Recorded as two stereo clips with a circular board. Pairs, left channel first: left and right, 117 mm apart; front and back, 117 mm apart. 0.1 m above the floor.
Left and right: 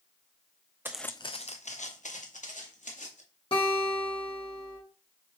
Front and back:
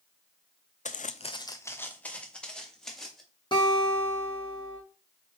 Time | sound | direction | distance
0.8 | footsteps | 20° right | 0.6 m
3.5 | a guitar | 50° left | 4 m